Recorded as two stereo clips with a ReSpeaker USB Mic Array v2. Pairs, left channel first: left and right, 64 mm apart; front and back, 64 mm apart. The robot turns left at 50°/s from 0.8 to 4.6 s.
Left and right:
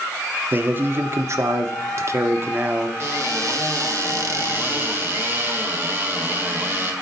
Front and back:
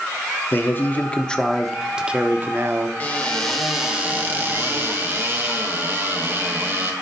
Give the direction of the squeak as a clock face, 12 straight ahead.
I don't hear a squeak.